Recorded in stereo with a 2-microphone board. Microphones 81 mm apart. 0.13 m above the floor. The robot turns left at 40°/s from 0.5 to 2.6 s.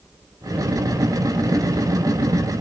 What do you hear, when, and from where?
Only background noise.